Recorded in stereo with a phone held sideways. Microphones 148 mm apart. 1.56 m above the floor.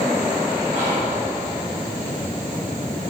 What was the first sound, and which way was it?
Whispering, 50° right (ahead or behind).